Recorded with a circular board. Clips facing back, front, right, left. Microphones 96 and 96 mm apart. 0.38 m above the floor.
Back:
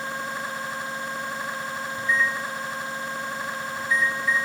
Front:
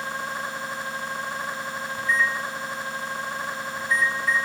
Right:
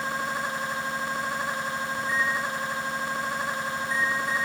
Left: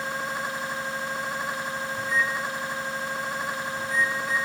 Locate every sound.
2.0 s a microwave: 95° left, 1.8 m